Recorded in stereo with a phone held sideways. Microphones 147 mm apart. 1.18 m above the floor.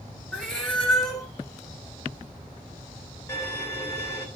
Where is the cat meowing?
5° left (ahead or behind), 2 m.